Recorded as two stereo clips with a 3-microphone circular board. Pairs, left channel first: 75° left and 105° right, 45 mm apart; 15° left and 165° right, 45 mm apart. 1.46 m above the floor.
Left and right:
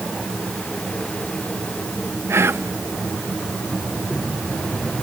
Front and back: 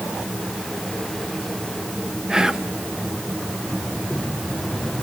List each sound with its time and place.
2.3 s whispering: 90° right, 0.5 m